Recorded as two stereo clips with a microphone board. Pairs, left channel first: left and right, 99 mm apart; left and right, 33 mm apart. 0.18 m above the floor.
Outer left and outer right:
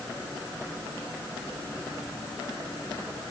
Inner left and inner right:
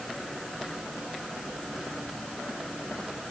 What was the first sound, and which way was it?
Only background noise.